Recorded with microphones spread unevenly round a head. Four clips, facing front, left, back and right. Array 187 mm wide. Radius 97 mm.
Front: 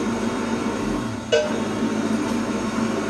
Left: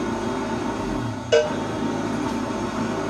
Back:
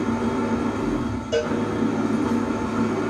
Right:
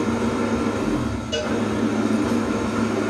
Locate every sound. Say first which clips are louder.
0.0 s an engine running: right 3 dB, back 1 dB; 110° right, 1.4 m
1.3 s a cowbell: left 8 dB, front 4 dB; 45° left, 0.5 m